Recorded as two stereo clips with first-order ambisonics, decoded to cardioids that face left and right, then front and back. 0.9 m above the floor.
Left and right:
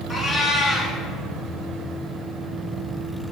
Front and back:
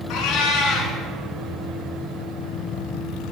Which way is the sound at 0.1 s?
10° left.